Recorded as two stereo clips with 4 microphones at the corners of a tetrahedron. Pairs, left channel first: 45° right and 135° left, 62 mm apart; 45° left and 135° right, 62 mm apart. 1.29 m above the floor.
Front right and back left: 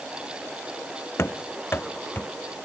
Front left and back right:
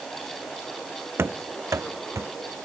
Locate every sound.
1.2 s running footsteps: 90° right; by 2.3 s 105° right